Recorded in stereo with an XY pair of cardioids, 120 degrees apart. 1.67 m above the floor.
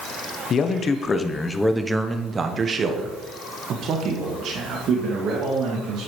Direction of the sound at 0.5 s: 45° left.